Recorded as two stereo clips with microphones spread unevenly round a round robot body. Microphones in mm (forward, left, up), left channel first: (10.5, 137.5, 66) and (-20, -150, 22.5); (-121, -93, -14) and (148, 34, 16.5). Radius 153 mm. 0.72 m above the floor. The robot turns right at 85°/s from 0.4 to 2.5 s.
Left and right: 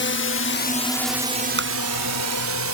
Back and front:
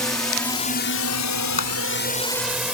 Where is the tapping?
150° right; by 1.7 s 140° right.